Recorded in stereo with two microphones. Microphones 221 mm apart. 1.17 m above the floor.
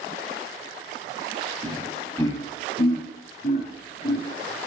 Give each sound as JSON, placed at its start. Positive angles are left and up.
{"t": 1.6, "sound": "laughter", "side_deg": -25, "distance_m": 0.7}